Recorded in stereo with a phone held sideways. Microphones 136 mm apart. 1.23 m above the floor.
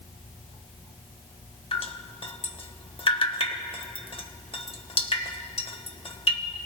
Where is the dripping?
40° left (ahead or behind), 1.0 m.